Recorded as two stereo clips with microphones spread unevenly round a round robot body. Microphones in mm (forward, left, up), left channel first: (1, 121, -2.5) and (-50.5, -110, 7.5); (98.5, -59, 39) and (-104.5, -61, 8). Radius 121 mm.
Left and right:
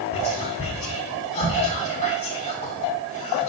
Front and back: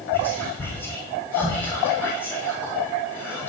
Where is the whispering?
85° left, 1.0 m.